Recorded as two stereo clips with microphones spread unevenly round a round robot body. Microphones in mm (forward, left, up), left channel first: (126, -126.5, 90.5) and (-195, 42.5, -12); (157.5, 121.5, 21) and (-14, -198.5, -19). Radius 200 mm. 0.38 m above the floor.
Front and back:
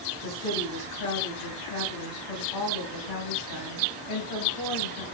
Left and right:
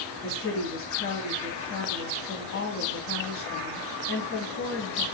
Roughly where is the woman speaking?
Ahead.